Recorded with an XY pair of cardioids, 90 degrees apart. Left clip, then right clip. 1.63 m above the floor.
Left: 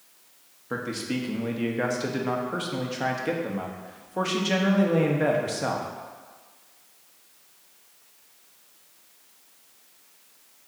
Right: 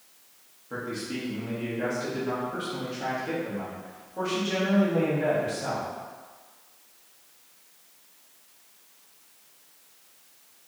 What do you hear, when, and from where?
0.7 s a man speaking: 70° left, 0.9 m